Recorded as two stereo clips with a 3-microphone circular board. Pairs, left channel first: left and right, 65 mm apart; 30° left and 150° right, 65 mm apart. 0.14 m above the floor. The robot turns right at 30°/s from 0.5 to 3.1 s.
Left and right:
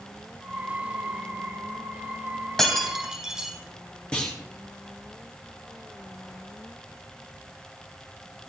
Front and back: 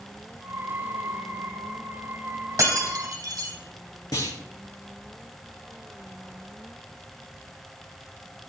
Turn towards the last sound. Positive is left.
turn(degrees=15)